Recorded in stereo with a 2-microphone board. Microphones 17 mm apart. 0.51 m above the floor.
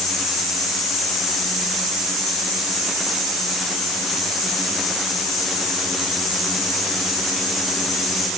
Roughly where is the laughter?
No laughter in this recording.